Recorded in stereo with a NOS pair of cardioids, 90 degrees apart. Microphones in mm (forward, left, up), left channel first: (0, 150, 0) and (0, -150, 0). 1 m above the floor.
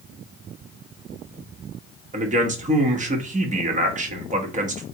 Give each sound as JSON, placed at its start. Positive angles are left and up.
{"t": 2.1, "sound": "a man speaking", "azimuth_deg": -25, "distance_m": 1.1}